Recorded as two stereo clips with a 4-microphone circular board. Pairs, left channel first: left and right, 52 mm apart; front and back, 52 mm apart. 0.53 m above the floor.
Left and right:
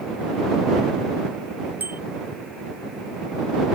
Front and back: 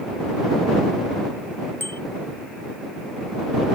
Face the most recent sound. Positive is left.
turn(degrees=-40)